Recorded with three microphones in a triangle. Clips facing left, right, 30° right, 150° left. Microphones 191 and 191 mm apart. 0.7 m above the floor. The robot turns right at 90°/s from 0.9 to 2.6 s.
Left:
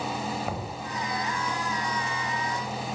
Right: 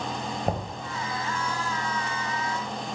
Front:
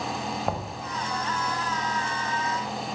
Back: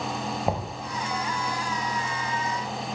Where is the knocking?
135° right, 3.5 m.